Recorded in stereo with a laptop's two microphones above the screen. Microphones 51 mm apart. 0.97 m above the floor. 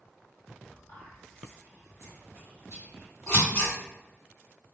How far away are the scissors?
About 1.6 m.